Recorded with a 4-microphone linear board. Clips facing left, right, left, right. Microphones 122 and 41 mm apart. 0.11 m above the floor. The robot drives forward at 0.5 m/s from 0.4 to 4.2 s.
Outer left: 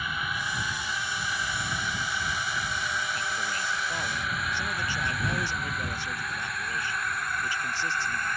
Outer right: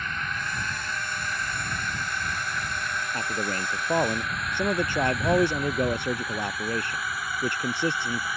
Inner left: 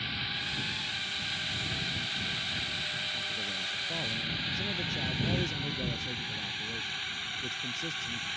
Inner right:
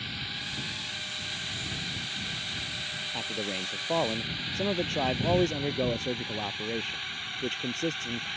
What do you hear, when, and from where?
0.0 s a drone: 10° left (ahead or behind); by 8.4 s 5° right (ahead or behind)
3.1 s a man speaking: 50° right (ahead or behind); by 8.3 s 60° right (ahead or behind)